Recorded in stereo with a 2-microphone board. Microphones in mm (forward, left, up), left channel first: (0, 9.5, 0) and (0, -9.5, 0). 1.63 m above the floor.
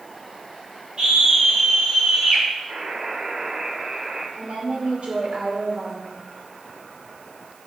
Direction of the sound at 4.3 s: 80° right.